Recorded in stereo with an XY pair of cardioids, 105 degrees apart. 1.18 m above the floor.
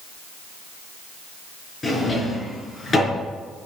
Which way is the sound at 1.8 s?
30° left.